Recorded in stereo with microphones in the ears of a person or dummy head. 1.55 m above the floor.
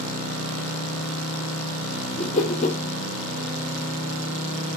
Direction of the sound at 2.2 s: 35° left (ahead or behind).